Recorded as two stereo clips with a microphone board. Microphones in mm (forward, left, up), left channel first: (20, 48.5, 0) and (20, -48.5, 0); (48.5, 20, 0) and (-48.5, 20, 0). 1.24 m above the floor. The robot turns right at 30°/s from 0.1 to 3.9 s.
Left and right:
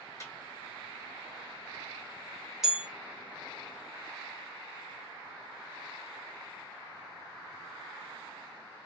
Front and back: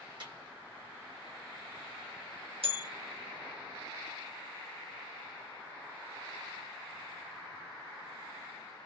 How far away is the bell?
About 1.0 m.